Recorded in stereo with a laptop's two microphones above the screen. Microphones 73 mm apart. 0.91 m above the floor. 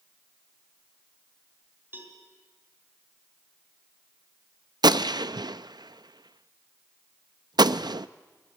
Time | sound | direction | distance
1.9 | a cowbell | 30° right (ahead or behind) | 2.5 m
4.8 | a gunshot | 75° right (ahead or behind) | 0.5 m